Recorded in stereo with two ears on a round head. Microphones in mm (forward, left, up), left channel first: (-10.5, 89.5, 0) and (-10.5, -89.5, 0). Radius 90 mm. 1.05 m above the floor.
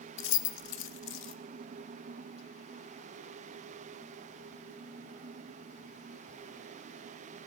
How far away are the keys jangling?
About 0.7 m.